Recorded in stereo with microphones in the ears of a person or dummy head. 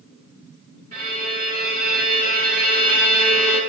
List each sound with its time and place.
0.9 s a violin: 40° right (ahead or behind), 7 m